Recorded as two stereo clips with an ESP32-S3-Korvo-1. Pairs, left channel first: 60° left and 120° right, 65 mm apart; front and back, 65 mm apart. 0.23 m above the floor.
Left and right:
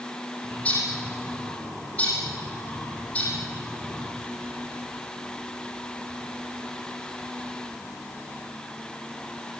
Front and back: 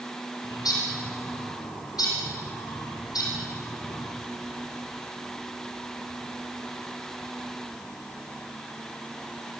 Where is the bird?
10° right, 9 m.